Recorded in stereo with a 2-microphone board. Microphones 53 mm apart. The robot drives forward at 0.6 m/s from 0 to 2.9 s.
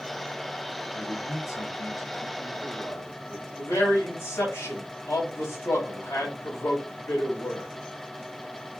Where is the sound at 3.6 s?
55° left (ahead or behind), 2 m.